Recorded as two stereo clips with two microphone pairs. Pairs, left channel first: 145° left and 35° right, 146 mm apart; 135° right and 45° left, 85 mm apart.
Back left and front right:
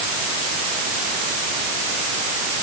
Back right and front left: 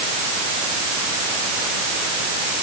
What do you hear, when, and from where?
Only background noise.